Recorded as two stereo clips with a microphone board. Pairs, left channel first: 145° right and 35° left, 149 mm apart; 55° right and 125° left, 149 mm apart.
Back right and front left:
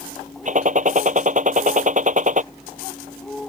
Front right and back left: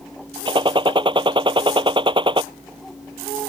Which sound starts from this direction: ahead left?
A gunshot, at 0.5 s.